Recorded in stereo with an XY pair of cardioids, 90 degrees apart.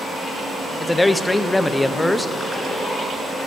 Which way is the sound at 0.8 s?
15° left.